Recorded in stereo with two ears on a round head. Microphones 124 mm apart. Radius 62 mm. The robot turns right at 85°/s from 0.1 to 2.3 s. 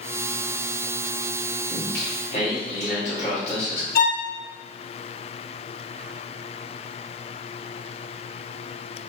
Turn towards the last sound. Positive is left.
turn(degrees=65)  # may be behind; listen again after turning